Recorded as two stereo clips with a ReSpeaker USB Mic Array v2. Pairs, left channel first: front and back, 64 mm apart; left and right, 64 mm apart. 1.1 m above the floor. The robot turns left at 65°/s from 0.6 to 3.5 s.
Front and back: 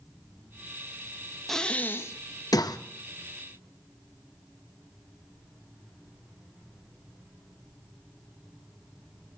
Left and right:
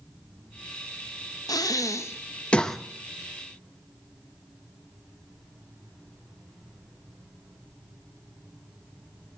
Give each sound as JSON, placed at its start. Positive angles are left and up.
{"t": 1.5, "sound": "breathing", "azimuth_deg": 85, "distance_m": 0.8}